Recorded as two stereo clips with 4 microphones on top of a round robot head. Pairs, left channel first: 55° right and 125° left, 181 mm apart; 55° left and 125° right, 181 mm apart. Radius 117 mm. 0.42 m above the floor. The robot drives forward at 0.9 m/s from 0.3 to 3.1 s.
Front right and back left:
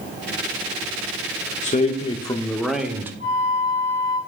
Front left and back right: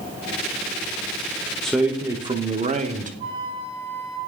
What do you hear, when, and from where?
1.6 s a man speaking: 30° right, 0.9 m; by 3.1 s 155° right, 1.1 m
3.2 s a flute: 170° left, 4.5 m